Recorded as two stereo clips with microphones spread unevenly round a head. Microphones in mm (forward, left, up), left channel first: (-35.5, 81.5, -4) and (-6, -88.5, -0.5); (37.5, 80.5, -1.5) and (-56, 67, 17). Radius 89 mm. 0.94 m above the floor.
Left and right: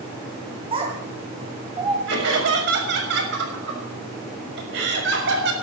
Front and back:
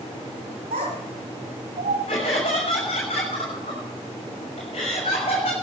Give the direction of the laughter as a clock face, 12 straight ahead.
2 o'clock.